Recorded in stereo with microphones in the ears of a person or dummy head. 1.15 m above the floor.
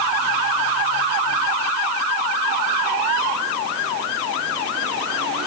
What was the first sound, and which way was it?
Only background noise.